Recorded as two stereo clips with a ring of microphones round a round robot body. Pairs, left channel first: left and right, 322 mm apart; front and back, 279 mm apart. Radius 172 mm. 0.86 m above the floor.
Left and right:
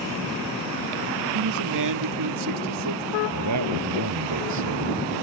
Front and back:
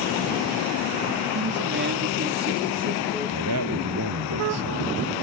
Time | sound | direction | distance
1.4 | a man speaking | 125° right | ?
3.3 | a man speaking | 135° right | ?